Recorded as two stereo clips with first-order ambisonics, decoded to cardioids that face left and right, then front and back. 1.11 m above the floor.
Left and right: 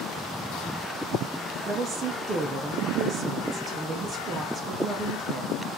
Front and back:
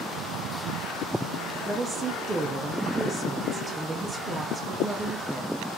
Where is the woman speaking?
115° right, 0.6 m.